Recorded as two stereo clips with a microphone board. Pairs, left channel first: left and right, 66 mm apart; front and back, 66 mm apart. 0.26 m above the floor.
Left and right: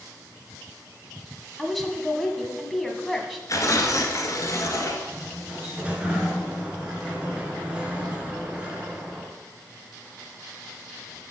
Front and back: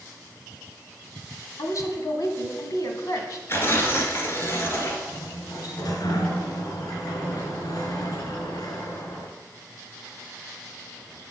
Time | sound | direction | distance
1.6 | a woman speaking | straight ahead | 1.6 m
3.5 | tearing paper | 50° left | 1.9 m
5.1 | a sliding door | 15° right | 1.9 m